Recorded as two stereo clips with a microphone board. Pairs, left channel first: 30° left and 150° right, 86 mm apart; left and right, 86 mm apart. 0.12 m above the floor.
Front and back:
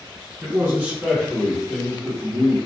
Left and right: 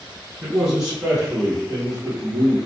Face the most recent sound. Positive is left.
turn(degrees=-15)